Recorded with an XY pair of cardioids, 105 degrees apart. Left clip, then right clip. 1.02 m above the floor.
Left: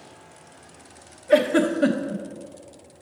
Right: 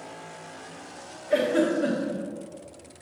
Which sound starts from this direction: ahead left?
A giggle, at 1.3 s.